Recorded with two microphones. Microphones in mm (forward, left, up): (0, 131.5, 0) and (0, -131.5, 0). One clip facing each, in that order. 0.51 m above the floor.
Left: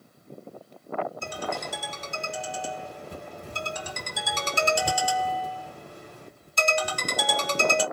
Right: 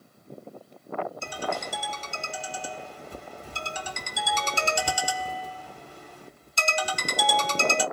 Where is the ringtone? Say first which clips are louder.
Even; 65° left (ahead or behind), 1.5 m.